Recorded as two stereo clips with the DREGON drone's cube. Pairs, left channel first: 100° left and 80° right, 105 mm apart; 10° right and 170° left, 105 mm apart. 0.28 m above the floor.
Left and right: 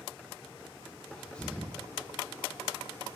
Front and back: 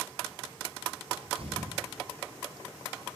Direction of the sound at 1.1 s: Straight behind.